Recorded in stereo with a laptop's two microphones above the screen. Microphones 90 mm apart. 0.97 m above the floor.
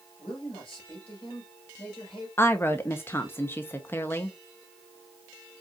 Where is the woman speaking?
25° left (ahead or behind), 0.6 m.